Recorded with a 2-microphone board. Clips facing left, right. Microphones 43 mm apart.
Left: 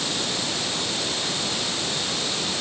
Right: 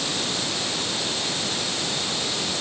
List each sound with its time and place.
Only background noise.